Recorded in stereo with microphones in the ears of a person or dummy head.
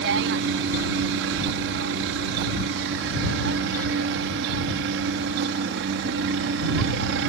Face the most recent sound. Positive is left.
turn(degrees=-65)  # may be behind; listen again after turning